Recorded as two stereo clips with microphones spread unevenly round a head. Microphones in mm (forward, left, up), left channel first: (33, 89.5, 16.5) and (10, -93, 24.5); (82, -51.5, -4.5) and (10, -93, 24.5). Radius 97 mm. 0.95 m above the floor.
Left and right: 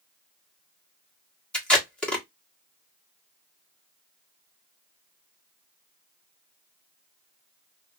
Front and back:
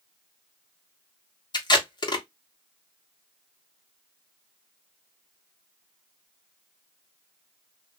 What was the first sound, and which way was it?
Tape being pulled, straight ahead.